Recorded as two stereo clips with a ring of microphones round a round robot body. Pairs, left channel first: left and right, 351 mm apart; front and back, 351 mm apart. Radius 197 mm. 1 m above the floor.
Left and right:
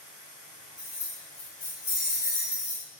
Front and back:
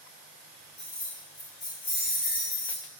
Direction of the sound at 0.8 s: 65° left.